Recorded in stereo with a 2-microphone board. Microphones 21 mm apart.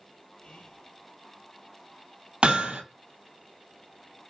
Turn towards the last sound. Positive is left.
turn(degrees=-65)  # may be behind; listen again after turning